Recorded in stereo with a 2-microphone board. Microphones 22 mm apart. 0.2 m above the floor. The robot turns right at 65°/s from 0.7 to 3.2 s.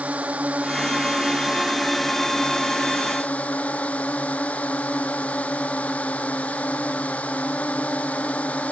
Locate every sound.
0.0 s a drone: 80° right; by 8.7 s 80° left